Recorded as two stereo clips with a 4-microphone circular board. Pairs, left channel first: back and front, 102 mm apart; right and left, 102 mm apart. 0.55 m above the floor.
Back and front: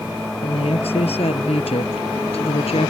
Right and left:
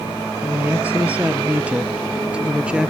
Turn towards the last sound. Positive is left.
turn(degrees=170)